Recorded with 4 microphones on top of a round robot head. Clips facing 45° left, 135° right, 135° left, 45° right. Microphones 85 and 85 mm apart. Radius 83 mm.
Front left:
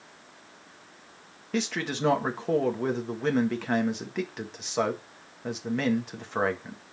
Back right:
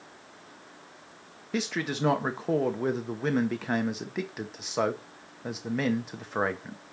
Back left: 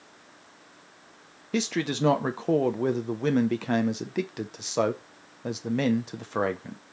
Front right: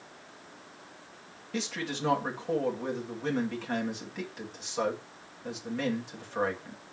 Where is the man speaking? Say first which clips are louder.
Front left 1 dB, back left 7 dB; 140° left, 0.8 m.